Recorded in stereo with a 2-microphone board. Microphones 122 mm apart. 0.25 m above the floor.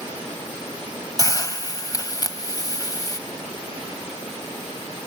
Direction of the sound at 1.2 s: 30° left (ahead or behind).